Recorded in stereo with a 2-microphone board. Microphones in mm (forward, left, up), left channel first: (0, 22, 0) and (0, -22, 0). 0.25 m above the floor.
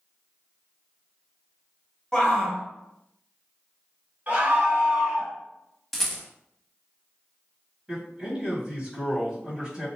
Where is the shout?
15° left (ahead or behind), 0.9 m.